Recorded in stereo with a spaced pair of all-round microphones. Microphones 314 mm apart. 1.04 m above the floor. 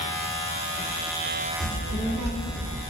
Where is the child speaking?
40° left (ahead or behind), 1.3 m; by 2.8 s 5° right (ahead or behind), 0.9 m.